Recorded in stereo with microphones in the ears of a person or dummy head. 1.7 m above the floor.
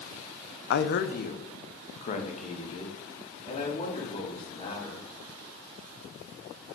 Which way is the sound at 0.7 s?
60° left (ahead or behind).